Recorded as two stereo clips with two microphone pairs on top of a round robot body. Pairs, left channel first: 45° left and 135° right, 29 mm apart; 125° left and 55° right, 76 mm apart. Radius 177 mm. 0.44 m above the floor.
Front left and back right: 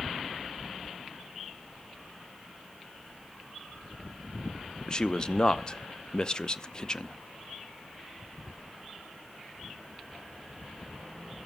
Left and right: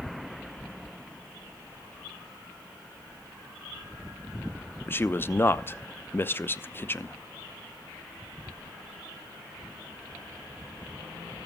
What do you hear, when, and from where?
4.9 s a man speaking: 80° left, 0.8 m